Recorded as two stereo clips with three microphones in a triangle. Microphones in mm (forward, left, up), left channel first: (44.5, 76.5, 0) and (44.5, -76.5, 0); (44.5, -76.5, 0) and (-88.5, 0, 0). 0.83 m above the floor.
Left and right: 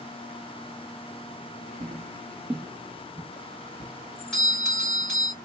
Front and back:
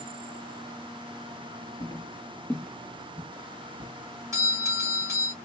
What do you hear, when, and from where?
1.8 s footsteps: 90° right, 1.1 m; by 3.9 s 140° left, 0.9 m
4.3 s a doorbell: 165° left, 1.4 m